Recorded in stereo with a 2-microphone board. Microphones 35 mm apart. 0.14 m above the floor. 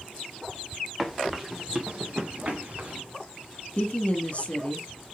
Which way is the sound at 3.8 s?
40° left (ahead or behind).